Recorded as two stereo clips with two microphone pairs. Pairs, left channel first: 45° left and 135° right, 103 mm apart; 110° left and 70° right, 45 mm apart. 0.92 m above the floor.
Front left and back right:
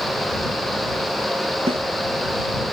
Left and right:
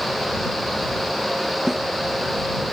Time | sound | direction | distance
1.7 | a snare drum | 155° right | ?